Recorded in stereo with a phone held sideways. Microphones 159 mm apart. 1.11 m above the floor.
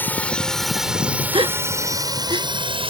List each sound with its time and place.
0.0 s a drone: 10° left (ahead or behind); by 2.9 s 35° right (ahead or behind)
1.3 s a gasp: 30° right (ahead or behind)